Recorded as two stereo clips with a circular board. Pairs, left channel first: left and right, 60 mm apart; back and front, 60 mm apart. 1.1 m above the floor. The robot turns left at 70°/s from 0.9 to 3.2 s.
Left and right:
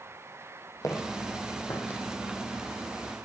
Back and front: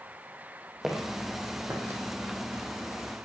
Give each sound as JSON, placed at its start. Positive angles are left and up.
{"t": 0.8, "sound": "footsteps", "azimuth_deg": 80, "distance_m": 3.0}